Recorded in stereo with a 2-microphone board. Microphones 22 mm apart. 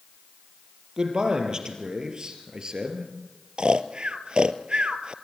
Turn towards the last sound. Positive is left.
turn(degrees=-50)  # may be behind; listen again after turning